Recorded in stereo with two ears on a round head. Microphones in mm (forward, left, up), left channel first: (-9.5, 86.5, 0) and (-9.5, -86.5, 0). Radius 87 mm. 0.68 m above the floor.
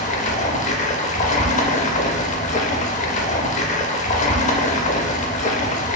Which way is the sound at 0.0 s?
40° left (ahead or behind).